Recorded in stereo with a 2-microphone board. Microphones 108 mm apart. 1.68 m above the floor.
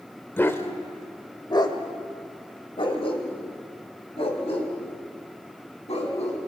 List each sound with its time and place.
0.4 s a dog barking: 20° left (ahead or behind), 1.4 m; by 6.4 s 70° left (ahead or behind), 4 m